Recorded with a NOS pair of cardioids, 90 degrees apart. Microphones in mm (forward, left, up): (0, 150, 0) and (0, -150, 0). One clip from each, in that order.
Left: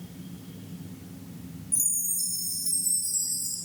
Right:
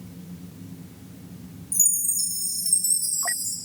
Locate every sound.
1.7 s a chime: 50° right, 2.5 m